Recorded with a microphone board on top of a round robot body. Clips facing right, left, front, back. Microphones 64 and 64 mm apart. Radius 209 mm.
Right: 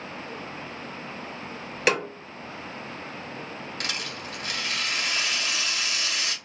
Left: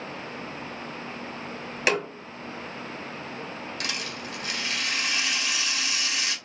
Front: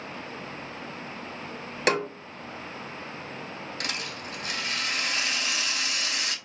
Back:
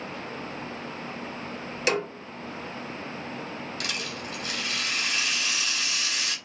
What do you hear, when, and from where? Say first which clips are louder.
1.9 s a snare drum: right 1 dB, front 2 dB; straight ahead, 2 m
3.8 s a rattle: right 1 dB, front 1 dB; 40° right, 2 m